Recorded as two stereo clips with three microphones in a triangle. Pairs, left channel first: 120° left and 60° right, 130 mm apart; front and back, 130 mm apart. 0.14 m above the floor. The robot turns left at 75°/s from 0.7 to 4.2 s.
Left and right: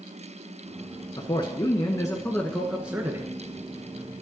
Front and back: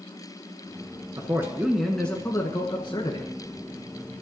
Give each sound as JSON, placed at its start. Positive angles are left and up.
{"t": 1.2, "sound": "a man speaking", "azimuth_deg": 145, "distance_m": 1.5}